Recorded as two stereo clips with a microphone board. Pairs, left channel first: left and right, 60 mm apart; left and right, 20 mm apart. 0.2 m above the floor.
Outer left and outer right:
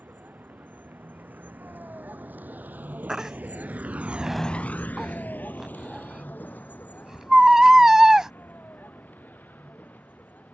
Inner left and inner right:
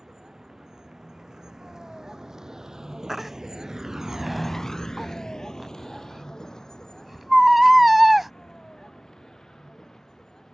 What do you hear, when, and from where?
0.0 s a vehicle: 30° right (ahead or behind); by 10.5 s 30° left (ahead or behind)
3.1 s a baby crying: 10° right (ahead or behind)